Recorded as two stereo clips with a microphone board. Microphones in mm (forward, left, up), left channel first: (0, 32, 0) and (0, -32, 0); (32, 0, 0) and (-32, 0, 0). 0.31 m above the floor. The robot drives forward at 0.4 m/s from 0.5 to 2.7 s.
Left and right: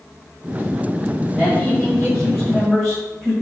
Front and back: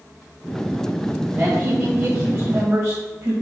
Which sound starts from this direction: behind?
A man speaking, at 1.3 s.